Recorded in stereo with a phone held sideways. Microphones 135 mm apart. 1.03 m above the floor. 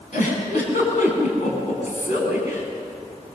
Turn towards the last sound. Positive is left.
turn(degrees=65)  # may be behind; listen again after turning